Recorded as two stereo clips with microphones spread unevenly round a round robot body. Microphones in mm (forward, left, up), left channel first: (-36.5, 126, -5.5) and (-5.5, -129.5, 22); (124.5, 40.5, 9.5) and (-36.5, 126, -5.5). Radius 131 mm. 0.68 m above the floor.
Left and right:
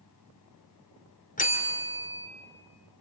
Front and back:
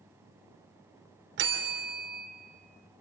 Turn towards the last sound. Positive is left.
turn(degrees=155)